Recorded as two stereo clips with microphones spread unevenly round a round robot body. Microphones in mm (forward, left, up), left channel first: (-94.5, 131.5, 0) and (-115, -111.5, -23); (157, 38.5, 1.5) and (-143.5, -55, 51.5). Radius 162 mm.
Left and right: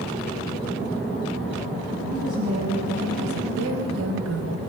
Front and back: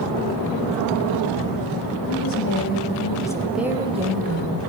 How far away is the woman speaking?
About 2.5 m.